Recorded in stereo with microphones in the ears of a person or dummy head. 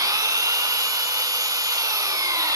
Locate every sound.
0.0 s an engine running: 20° right (ahead or behind), 0.7 m